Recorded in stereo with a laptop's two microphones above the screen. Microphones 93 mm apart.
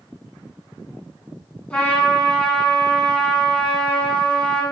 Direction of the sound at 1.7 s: 10° left (ahead or behind).